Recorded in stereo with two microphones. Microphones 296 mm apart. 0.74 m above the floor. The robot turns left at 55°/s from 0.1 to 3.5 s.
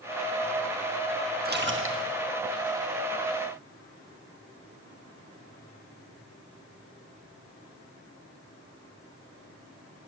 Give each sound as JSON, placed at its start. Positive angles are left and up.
{"t": 1.4, "sound": "a splash", "azimuth_deg": -40, "distance_m": 1.4}